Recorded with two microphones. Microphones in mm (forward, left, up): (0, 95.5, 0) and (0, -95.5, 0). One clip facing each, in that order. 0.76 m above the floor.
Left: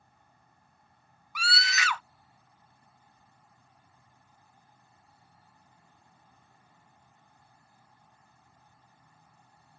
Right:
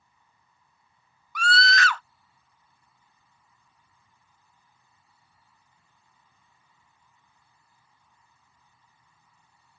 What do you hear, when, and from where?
0.0 s an insect: 60° left (ahead or behind)
1.4 s a scream: 10° left (ahead or behind)